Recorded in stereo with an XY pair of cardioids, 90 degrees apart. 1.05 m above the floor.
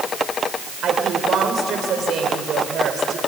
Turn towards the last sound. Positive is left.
turn(degrees=-70)